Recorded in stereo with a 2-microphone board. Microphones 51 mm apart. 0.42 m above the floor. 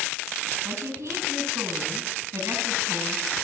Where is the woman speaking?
70° right (ahead or behind), 2.5 m.